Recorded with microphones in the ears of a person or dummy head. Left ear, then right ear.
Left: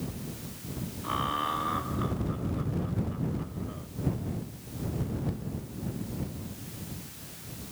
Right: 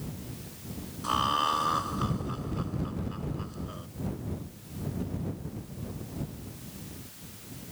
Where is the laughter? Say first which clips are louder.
Right 4 dB; 90° right; by 3.9 s 85° right.